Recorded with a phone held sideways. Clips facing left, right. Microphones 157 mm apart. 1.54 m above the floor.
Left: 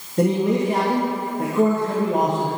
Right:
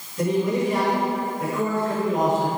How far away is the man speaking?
About 3 m.